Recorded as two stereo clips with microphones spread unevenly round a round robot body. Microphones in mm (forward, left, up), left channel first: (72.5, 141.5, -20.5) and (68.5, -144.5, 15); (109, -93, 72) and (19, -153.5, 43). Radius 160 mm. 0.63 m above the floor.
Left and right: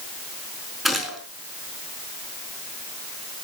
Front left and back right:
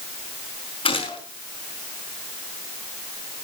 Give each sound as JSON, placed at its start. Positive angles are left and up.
{"t": 0.8, "sound": "a gunshot", "azimuth_deg": 0, "distance_m": 4.5}